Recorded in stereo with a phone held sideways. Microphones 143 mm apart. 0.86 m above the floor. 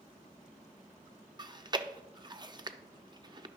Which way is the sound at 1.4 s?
30° right (ahead or behind).